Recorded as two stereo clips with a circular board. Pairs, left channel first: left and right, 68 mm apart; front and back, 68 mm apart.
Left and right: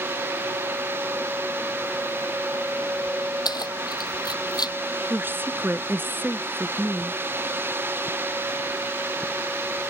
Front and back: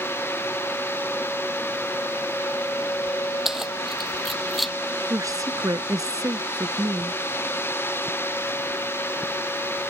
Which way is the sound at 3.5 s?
95° left.